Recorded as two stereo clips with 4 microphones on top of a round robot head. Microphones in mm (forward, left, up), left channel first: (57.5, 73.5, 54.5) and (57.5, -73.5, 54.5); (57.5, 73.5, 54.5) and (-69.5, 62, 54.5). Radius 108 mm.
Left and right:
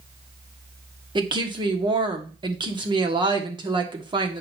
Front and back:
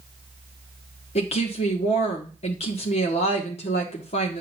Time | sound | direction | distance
1.1 | a woman speaking | 35° right | 1.7 m